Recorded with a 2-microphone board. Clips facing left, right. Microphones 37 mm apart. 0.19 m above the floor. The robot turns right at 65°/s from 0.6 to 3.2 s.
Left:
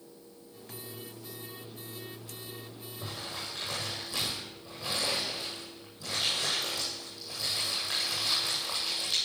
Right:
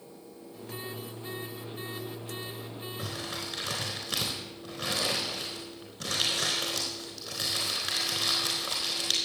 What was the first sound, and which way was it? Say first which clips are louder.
Crumpling: right 2 dB; 80° right.